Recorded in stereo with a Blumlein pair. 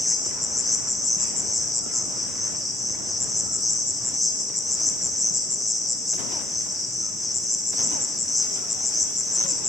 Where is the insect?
5° left, 0.8 m.